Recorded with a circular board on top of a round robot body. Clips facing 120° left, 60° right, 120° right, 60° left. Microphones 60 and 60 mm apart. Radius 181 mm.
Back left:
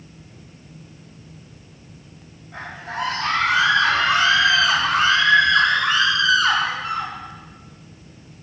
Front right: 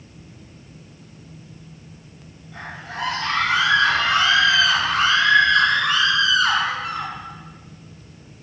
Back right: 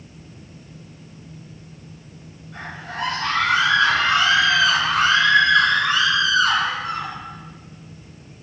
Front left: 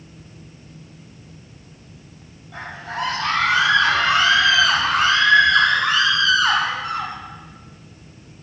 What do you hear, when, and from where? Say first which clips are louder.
2.5 s a scream: back left 3 dB, front left 2 dB; 55° left, 6.5 m; by 7.1 s 25° left, 6 m